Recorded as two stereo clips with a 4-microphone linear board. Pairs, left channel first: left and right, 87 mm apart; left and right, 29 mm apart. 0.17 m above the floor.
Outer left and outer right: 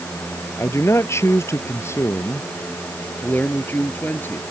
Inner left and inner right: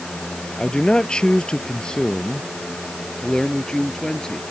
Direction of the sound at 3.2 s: 25° left (ahead or behind).